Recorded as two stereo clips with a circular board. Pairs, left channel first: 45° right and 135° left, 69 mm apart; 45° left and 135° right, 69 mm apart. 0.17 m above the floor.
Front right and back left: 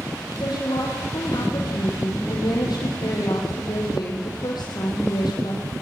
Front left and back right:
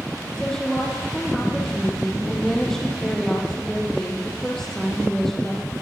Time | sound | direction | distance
0.4 | a woman speaking | 40° right | 6 m